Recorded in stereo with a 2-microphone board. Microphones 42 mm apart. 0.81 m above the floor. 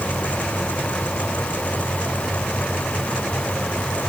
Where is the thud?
No thud in this recording.